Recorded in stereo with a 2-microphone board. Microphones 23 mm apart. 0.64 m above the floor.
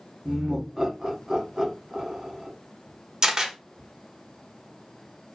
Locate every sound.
0.2 s laughter: 20° right (ahead or behind), 1.2 m
3.2 s a camera shutter: 30° right (ahead or behind), 0.9 m